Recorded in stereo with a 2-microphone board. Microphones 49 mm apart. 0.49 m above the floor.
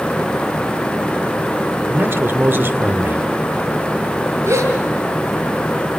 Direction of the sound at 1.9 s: 50° right (ahead or behind).